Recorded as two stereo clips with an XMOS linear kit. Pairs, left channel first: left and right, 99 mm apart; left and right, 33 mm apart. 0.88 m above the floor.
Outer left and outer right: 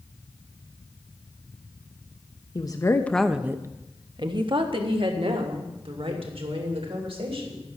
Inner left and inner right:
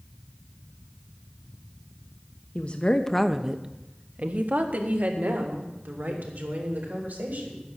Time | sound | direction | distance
2.5 | a woman speaking | 45° left (ahead or behind) | 0.9 m